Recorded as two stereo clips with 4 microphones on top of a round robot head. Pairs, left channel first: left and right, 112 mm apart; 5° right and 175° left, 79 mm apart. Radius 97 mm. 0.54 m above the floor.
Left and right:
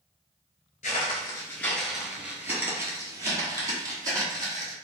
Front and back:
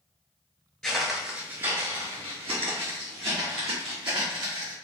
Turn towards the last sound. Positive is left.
turn(degrees=-145)